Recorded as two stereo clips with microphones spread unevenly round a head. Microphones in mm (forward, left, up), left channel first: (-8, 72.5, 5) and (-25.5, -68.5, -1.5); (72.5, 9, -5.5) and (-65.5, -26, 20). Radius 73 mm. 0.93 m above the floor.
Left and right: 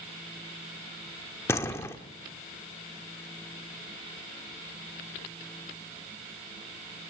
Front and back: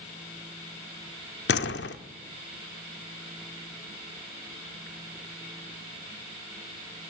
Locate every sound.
1.5 s a door slam: 10° left, 1.3 m